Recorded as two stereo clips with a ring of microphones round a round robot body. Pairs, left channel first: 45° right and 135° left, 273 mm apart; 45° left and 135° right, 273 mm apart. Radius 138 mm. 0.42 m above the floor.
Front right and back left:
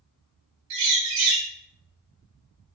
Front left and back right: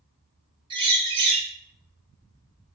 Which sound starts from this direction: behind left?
A bird, at 0.7 s.